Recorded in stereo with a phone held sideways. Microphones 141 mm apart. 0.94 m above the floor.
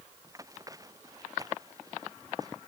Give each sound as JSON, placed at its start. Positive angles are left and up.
{"t": 0.2, "sound": "running footsteps", "side_deg": -25}